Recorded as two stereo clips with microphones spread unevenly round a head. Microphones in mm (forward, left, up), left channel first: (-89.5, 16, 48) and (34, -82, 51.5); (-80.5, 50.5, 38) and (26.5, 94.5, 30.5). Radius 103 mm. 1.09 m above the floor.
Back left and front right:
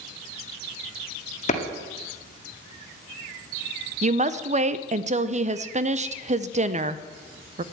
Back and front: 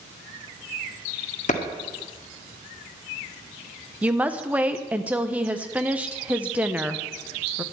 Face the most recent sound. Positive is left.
turn(degrees=-45)